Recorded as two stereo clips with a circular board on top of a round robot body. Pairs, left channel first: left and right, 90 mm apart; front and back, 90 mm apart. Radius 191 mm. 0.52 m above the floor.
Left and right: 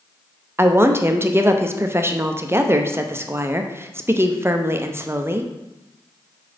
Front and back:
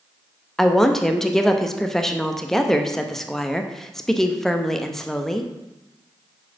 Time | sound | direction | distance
0.6 | a woman speaking | 80° right | 1.0 m